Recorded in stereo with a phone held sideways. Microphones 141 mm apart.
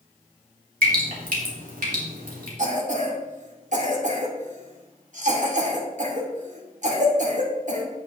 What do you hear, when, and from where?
0.8 s dripping: 70° right (ahead or behind), 2.5 m
2.6 s a cough: 55° right (ahead or behind), 2 m